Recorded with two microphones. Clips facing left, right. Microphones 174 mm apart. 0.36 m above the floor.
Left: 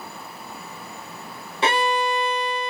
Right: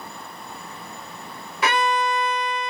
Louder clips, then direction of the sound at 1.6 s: Even; 30° left (ahead or behind).